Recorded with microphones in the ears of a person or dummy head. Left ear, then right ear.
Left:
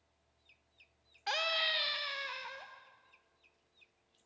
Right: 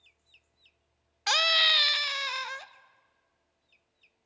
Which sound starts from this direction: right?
A scream, at 1.3 s.